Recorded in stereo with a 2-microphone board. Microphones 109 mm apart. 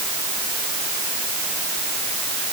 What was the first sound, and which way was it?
Only background noise.